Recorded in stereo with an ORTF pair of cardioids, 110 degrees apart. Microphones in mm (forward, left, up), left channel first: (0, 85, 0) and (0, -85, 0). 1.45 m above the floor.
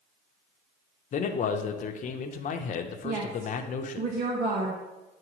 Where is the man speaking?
50° left, 0.9 m.